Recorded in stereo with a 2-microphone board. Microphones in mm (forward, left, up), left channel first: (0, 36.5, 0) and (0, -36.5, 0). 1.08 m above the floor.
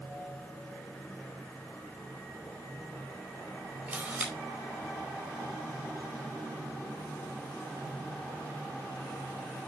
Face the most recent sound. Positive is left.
turn(degrees=-15)  # may be behind; listen again after turning